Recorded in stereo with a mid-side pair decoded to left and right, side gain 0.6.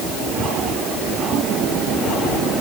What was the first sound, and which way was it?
Only background noise.